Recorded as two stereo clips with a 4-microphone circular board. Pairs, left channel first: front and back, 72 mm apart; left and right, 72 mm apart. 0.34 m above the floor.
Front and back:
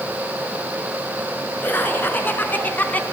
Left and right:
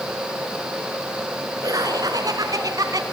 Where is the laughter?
60° right, 4.5 m; by 3.0 s 65° right, 3 m.